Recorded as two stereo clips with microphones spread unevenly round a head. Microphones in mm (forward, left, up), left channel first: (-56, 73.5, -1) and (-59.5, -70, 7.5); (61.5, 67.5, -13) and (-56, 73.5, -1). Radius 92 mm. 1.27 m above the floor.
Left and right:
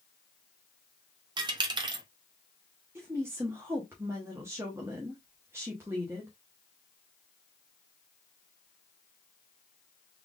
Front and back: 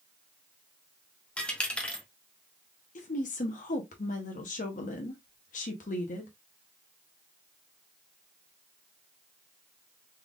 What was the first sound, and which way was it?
A dropped coin, 85° right.